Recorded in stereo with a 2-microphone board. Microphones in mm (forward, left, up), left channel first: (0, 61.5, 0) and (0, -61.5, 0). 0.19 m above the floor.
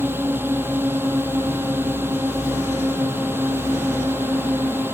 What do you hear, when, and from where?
0.0 s a drone: 15° right (ahead or behind)